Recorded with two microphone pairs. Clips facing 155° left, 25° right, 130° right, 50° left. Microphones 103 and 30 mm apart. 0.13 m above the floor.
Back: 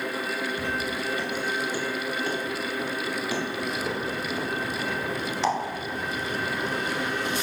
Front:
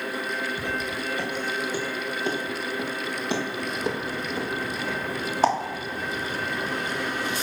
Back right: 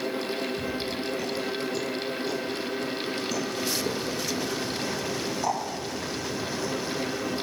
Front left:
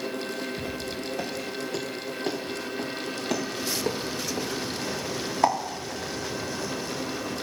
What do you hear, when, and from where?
0.6 s footsteps: 50° left, 5.5 m; by 5.5 s 20° left, 3.5 m